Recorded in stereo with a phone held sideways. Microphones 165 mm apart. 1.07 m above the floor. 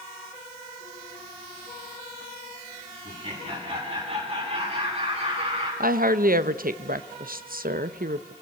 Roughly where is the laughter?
Right.